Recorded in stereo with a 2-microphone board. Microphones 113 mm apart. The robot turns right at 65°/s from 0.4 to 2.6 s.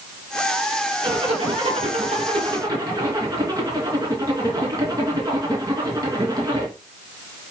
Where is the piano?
No piano in this recording.